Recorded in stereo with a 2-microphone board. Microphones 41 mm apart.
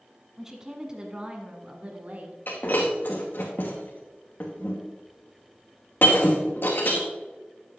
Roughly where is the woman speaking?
Centre.